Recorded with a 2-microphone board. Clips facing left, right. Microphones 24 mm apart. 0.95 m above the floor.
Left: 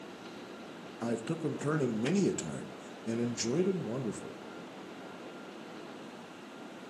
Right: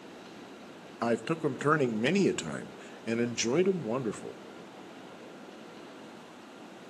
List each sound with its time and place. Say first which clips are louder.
1.0 s a man speaking: right 5 dB; 50° right (ahead or behind), 0.7 m